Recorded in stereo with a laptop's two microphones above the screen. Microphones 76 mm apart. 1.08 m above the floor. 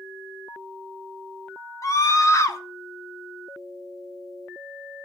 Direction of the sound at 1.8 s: 45° left (ahead or behind).